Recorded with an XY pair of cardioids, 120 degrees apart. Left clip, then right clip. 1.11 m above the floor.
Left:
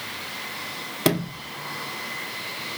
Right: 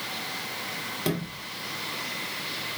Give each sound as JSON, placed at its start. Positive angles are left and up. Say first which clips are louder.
{"t": 1.1, "sound": "a sliding door", "louder": "left 6 dB", "azimuth_deg": 55, "distance_m": 0.7}